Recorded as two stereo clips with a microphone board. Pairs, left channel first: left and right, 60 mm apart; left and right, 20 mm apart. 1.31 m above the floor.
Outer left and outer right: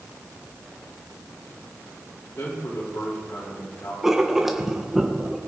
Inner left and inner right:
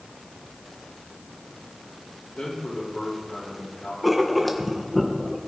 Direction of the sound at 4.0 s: 5° right (ahead or behind).